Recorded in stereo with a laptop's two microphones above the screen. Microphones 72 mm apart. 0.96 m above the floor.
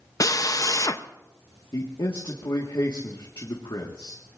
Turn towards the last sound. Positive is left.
turn(degrees=70)  # may be behind; listen again after turning